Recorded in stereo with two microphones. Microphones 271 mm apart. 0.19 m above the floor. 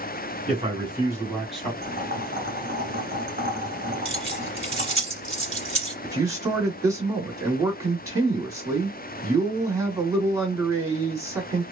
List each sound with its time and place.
0.5 s a man speaking: 25° right (ahead or behind), 2 m; by 1.7 s 5° left (ahead or behind), 1.5 m
1.8 s boiling: 35° right (ahead or behind), 1.7 m
4.0 s keys jangling: 45° right (ahead or behind), 1.1 m
6.0 s a man speaking: 10° right (ahead or behind), 1.6 m